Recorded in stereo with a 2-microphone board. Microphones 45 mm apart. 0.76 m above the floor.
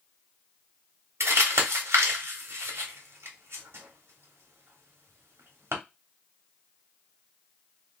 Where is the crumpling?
85° right, 1.3 m.